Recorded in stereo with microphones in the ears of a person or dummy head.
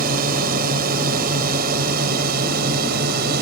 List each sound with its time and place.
0.0 s a drone: 45° right (ahead or behind)